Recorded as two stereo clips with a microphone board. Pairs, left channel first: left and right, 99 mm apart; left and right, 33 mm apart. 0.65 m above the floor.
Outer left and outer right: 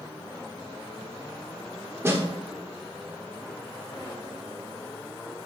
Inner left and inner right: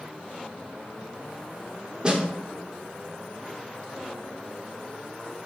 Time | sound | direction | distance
2.0 | a snare drum | 25° right (ahead or behind) | 1.4 m